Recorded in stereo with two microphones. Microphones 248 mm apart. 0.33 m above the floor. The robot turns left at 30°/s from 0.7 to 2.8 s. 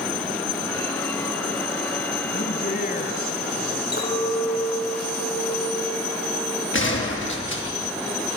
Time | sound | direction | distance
2.3 | a man speaking | 50° left (ahead or behind) | 3 m
3.9 | a clink | 40° left (ahead or behind) | 5.5 m
6.7 | a gunshot | 50° left (ahead or behind) | 6 m